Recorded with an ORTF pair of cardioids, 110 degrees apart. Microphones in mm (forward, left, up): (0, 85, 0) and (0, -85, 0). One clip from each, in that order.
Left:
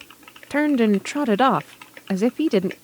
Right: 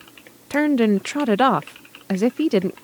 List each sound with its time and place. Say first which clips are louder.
0.5 s a woman speaking: right 1 dB; 5° right